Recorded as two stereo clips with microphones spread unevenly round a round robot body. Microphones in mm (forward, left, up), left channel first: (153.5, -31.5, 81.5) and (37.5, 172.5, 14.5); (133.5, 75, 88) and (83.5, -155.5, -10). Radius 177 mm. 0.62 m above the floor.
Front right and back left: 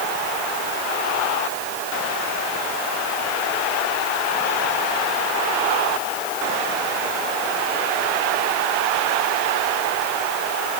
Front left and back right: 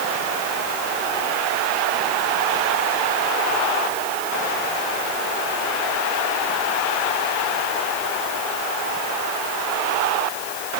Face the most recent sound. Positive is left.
No sound to turn to.